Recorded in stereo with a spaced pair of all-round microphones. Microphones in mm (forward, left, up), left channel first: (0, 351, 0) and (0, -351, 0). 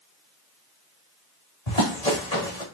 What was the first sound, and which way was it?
Running footsteps, 60° left (ahead or behind).